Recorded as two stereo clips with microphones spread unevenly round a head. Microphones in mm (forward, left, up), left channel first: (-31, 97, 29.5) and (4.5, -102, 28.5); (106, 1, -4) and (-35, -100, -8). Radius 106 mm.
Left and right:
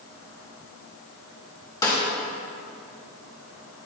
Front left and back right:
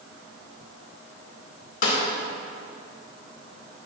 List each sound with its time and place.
1.8 s a snare drum: 25° left, 2.5 m